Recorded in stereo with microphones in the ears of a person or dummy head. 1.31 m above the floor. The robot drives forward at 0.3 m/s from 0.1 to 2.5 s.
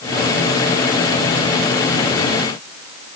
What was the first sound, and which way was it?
Only background noise.